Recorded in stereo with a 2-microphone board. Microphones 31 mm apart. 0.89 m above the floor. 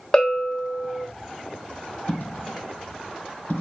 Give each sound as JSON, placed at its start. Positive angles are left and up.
{"t": 0.1, "sound": "a bell", "side_deg": 20, "distance_m": 1.0}
{"t": 2.1, "sound": "a dropped coin", "side_deg": 60, "distance_m": 2.5}